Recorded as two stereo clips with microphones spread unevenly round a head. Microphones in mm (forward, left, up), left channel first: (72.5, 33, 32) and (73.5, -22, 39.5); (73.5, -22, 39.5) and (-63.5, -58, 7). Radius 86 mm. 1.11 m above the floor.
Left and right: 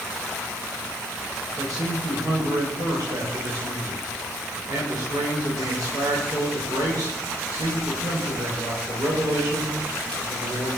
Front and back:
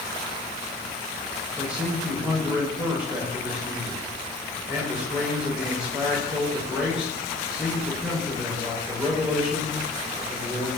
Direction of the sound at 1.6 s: 80° right.